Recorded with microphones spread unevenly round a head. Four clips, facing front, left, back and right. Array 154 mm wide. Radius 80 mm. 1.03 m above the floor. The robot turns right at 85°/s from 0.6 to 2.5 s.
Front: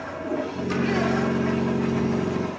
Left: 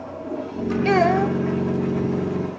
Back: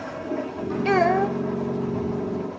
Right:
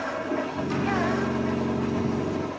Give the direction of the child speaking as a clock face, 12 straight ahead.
8 o'clock.